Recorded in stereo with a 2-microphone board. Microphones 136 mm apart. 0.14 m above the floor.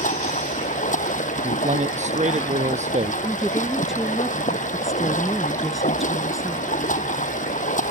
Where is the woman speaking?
Centre (ahead or behind).